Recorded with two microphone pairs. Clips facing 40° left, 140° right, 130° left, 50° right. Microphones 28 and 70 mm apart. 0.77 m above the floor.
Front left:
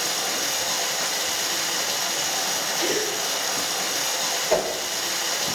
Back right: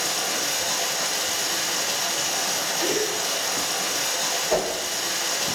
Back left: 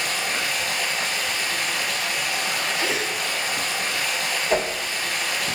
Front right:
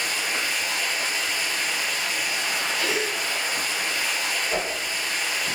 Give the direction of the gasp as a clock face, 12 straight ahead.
9 o'clock.